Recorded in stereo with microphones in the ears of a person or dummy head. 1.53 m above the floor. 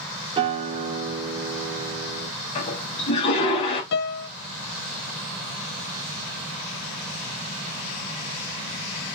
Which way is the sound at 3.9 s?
60° left (ahead or behind).